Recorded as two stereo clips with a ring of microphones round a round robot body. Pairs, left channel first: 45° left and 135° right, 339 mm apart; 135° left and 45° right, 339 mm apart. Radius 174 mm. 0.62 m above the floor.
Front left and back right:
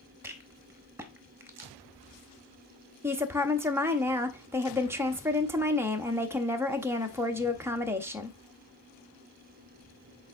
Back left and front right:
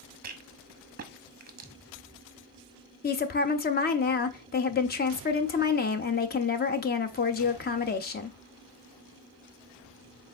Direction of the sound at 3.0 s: 150° left.